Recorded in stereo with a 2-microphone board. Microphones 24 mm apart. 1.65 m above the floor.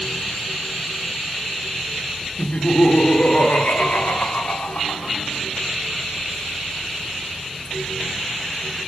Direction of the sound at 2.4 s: 40° left (ahead or behind).